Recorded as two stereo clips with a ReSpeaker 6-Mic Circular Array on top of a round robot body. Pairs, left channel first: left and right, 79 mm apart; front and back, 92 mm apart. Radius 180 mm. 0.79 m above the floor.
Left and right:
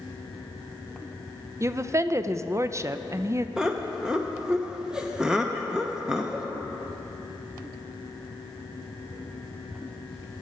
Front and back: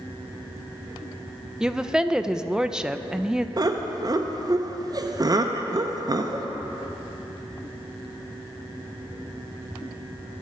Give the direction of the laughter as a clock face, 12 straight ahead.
6 o'clock.